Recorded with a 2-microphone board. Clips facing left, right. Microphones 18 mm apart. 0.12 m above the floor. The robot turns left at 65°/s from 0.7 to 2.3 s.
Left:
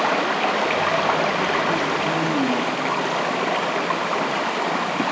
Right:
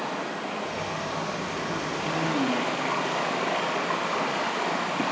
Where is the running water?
125° left, 3.5 m; by 5.1 s 20° left, 3.5 m.